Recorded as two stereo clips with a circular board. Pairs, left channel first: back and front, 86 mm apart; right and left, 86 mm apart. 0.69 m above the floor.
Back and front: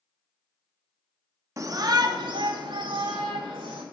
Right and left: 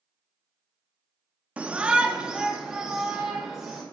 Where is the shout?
20° left, 0.7 m; by 3.8 s 5° left, 2.5 m.